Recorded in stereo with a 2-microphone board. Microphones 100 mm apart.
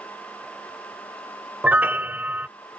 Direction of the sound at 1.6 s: 15° right (ahead or behind).